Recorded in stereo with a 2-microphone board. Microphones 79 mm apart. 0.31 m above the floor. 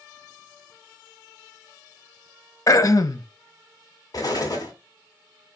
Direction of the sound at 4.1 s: 50° left (ahead or behind).